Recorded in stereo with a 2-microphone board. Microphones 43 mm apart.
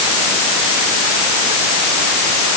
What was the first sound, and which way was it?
Only background noise.